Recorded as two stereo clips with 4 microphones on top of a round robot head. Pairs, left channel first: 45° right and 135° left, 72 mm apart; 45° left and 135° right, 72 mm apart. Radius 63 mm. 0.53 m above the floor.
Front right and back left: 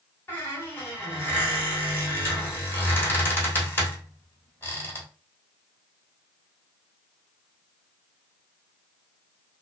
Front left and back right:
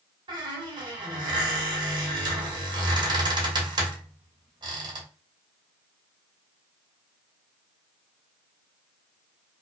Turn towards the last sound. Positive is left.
turn(degrees=-110)